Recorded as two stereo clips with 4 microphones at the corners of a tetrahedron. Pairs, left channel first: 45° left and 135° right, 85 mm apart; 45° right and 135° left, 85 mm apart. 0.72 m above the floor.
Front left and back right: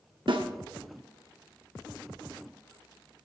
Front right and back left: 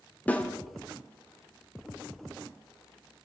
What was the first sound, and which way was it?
A snare drum, 115° right.